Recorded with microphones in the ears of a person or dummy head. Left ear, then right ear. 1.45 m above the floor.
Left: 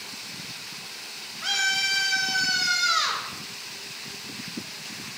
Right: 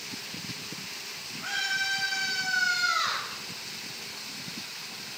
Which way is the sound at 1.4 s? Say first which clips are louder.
Left 5 dB; 70° left (ahead or behind).